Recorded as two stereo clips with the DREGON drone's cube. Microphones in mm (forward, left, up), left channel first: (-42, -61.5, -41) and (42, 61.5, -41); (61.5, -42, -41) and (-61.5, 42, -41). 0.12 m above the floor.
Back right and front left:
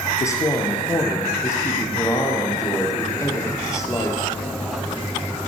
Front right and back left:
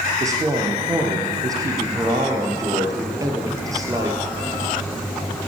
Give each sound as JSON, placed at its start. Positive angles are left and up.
{"t": 0.2, "sound": "a woman speaking", "azimuth_deg": -170, "distance_m": 1.6}